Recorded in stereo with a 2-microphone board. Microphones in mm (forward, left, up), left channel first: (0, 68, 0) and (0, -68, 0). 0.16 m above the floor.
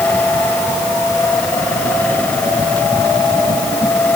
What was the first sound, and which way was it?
Only background noise.